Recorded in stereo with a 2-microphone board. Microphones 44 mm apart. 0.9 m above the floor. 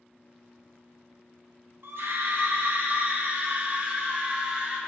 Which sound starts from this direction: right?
A scream, at 1.8 s.